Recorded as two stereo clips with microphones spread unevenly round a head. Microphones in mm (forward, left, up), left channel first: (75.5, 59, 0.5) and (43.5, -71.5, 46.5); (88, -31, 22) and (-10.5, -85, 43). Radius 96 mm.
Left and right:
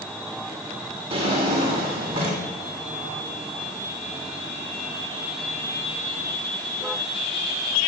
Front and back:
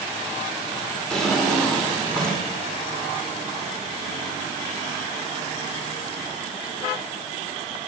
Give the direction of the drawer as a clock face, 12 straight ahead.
2 o'clock.